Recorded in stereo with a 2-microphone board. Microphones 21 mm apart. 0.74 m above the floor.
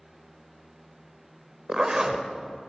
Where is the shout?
No shout in this recording.